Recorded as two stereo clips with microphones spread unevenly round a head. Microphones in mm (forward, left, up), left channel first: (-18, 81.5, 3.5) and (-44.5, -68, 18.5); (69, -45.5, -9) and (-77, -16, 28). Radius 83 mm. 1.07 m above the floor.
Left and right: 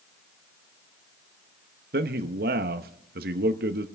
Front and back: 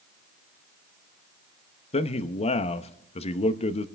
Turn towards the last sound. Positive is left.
turn(degrees=-60)